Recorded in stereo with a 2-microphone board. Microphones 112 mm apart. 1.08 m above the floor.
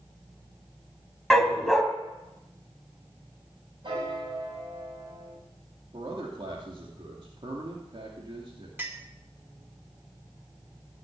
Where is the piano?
50° right (ahead or behind), 7 m.